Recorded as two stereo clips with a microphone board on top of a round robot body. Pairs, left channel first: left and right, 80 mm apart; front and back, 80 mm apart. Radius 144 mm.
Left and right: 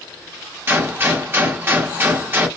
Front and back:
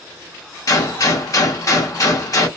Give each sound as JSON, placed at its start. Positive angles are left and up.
{"t": 0.7, "sound": "a gunshot", "azimuth_deg": -35, "distance_m": 1.1}